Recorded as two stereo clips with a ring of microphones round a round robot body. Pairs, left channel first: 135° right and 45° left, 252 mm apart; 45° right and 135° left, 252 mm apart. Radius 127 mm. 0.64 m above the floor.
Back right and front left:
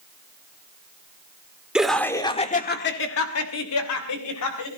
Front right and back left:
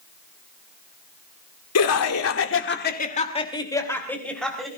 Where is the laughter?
40° right, 2.5 m; by 4.7 s 135° right, 4 m.